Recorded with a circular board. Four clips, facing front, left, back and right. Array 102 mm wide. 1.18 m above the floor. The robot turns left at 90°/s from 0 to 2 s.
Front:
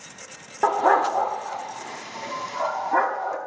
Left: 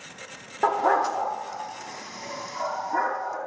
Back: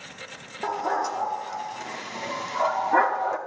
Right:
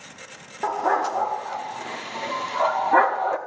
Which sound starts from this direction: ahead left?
A dog barking, at 0.6 s.